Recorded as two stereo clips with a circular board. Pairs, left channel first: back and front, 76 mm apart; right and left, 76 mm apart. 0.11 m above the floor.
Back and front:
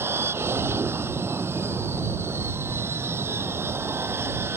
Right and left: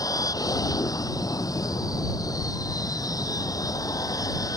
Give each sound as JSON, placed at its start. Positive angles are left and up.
{"t": 0.0, "sound": "an aircraft", "azimuth_deg": -55}